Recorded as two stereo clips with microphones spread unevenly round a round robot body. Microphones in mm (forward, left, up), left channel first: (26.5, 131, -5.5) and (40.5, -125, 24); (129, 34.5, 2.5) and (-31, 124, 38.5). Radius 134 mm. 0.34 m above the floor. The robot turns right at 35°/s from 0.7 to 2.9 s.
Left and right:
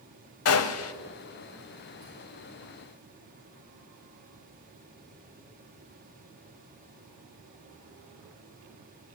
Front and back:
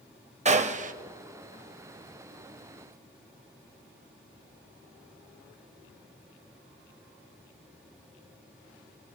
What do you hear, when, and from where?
0.5 s a gunshot: 95° left, 0.9 m; by 0.9 s 105° left, 0.9 m